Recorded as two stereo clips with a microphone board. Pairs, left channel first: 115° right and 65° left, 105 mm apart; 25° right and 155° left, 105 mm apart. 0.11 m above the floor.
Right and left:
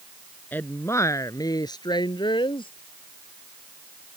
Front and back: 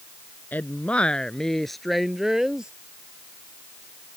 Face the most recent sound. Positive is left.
turn(degrees=-120)